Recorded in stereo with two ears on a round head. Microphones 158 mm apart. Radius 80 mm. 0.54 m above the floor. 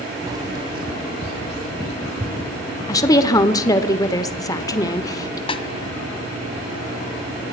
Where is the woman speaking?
20° left (ahead or behind), 1.6 m.